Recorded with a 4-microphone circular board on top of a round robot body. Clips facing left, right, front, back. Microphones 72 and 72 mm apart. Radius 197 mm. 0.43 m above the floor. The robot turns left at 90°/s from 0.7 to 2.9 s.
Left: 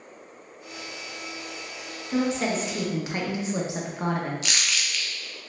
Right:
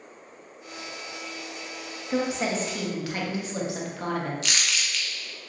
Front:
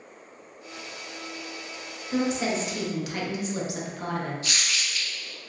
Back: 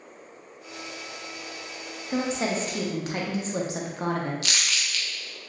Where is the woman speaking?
140° right, 1.0 m; by 4.3 s 150° left, 1.0 m.